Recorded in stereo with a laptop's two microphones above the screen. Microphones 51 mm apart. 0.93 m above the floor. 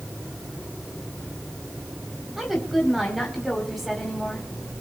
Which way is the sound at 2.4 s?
5° right (ahead or behind).